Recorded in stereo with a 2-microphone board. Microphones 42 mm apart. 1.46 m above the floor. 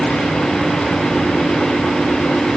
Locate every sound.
Only background noise.